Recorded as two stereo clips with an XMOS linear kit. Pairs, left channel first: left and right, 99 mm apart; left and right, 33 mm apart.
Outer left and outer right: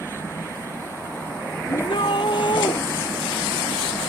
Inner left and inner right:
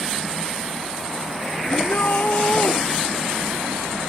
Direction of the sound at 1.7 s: 55° left (ahead or behind).